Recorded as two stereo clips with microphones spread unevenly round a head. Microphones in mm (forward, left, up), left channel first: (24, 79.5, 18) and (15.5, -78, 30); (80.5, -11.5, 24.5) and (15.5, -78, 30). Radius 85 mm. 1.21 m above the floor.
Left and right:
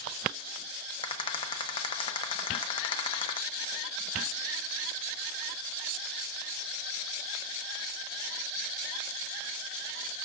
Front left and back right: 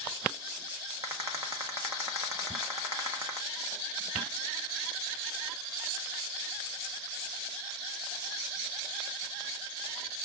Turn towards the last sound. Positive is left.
turn(degrees=150)